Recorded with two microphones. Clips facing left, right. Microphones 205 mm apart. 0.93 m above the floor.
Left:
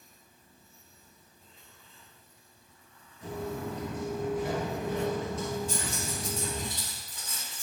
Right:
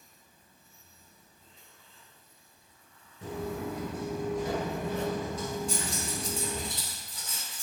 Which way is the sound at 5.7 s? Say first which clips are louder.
Even; 75° right (ahead or behind).